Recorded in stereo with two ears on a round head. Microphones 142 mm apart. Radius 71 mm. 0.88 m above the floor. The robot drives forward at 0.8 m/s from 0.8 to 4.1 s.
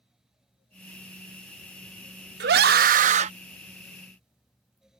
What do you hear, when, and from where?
2.4 s a scream: 70° right (ahead or behind); by 3.3 s 40° right (ahead or behind)